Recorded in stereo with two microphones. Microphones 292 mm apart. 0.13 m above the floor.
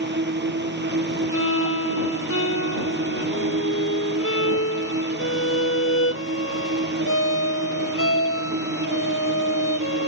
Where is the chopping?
I don't hear chopping.